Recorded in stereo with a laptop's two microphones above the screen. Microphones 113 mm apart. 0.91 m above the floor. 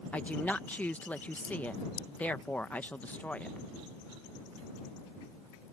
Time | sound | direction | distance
0.1 | a woman speaking | 15° left (ahead or behind) | ?